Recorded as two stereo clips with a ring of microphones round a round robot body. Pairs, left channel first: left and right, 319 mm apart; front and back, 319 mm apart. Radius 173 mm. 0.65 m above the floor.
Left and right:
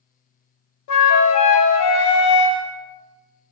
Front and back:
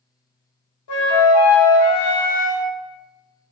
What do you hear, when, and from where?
0.9 s a flute: 50° left, 0.6 m